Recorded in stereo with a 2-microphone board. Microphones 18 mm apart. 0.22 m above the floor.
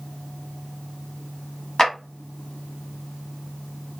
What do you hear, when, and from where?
1.8 s a clap: 30° left (ahead or behind), 1.1 m